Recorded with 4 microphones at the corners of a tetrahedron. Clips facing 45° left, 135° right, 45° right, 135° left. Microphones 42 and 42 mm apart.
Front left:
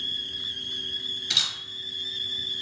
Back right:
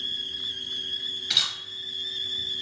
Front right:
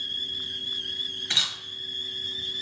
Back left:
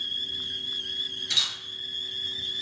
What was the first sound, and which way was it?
A camera shutter, 55° right.